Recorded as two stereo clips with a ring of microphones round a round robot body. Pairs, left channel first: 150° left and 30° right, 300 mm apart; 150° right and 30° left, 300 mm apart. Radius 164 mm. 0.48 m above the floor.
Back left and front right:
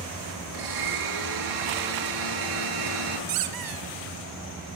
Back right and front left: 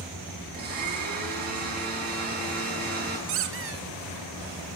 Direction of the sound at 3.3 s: 20° right.